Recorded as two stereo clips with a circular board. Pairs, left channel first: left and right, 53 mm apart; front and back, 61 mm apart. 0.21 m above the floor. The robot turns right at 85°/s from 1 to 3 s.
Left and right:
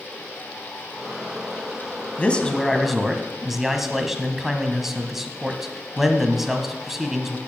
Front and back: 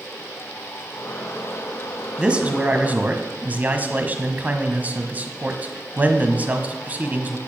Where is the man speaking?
120° left, 1.1 m; by 7.4 s 170° right, 1.1 m.